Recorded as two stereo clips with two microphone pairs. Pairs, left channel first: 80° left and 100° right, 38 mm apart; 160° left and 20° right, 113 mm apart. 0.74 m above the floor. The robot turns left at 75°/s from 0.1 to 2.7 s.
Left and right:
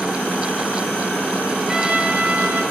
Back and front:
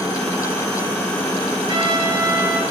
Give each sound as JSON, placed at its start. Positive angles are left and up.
{"t": 1.7, "sound": "a trumpet", "azimuth_deg": -35, "distance_m": 1.3}